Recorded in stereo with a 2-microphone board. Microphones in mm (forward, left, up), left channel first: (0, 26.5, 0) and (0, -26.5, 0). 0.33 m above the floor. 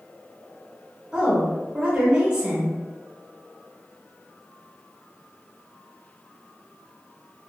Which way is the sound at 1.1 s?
20° right (ahead or behind).